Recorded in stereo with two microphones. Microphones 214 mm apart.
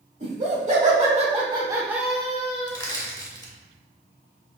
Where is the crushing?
20° left (ahead or behind), 0.8 m.